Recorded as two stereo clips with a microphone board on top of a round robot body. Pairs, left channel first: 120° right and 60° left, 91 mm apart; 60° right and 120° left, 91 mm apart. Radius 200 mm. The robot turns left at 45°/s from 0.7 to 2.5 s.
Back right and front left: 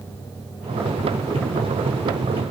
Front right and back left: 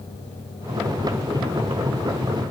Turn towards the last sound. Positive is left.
No sound to turn to.